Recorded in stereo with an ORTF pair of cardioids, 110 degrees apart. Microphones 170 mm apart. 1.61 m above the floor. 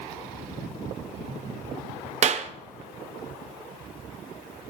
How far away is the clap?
About 0.8 m.